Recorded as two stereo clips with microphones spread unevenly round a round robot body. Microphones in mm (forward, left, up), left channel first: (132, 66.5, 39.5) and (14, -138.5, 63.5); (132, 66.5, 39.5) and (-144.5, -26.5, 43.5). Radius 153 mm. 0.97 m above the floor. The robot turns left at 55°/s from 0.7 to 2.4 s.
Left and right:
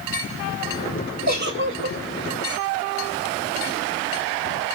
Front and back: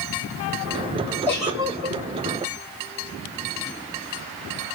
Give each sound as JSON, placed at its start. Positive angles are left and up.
{"t": 1.3, "sound": "a giggle", "azimuth_deg": -65, "distance_m": 1.5}